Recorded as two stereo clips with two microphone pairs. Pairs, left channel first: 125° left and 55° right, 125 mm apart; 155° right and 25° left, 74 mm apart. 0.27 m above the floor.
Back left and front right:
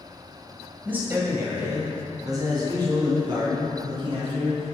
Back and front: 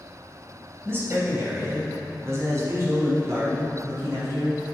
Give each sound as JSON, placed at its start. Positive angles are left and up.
{"t": 0.8, "sound": "a man speaking", "azimuth_deg": 10, "distance_m": 1.6}